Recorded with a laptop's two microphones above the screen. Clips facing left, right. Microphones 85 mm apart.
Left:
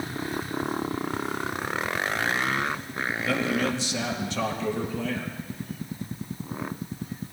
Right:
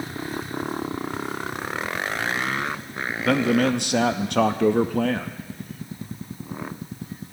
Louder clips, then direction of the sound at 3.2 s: Right 7 dB; 60° right (ahead or behind).